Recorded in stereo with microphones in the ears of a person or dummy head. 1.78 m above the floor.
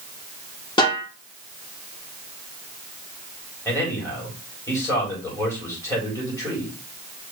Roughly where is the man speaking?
Centre.